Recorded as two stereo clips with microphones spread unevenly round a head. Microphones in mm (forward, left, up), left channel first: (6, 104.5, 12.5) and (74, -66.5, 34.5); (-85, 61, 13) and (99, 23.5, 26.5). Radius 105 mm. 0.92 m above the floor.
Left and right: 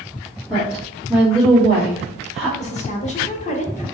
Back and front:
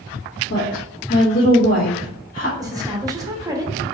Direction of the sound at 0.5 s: 160° right.